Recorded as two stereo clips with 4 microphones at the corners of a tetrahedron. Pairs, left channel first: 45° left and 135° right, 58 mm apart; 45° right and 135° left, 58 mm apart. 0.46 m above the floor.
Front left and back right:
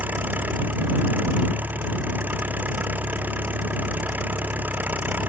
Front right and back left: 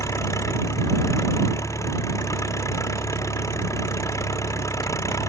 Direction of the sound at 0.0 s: 75° right.